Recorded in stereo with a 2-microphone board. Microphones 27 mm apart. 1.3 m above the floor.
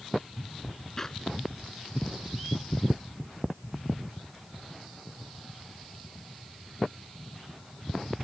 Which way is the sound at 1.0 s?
20° left (ahead or behind).